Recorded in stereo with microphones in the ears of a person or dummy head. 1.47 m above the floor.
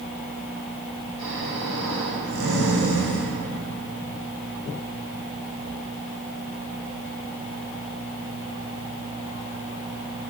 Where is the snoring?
75° right (ahead or behind), 2 m.